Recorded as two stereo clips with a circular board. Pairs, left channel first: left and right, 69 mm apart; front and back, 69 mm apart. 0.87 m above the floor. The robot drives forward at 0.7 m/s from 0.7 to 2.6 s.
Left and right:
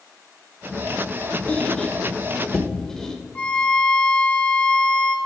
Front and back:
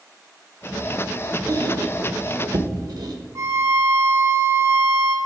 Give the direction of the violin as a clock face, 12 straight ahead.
7 o'clock.